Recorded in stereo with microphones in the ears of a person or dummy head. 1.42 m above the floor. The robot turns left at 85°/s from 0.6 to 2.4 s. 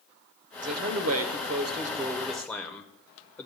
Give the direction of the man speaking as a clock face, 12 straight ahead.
1 o'clock.